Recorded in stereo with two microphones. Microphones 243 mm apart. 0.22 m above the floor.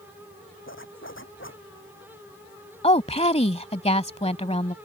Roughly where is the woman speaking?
Left.